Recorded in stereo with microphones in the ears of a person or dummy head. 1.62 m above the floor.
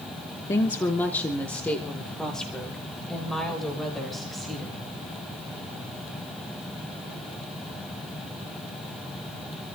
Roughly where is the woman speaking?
Left.